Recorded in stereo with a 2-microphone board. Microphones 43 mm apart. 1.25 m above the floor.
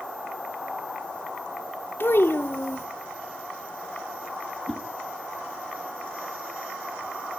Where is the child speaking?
65° left (ahead or behind), 0.8 m.